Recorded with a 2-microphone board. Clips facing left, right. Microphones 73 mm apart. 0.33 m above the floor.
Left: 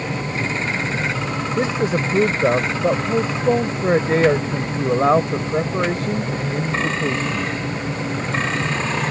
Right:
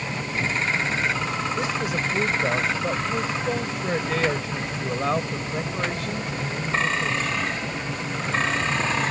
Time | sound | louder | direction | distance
1.6 | a man speaking | left 6 dB | 35° left (ahead or behind) | ?